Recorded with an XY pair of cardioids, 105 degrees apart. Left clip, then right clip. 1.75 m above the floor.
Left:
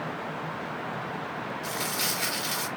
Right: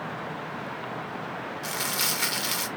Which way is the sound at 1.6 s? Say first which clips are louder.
Right 2 dB; 50° right.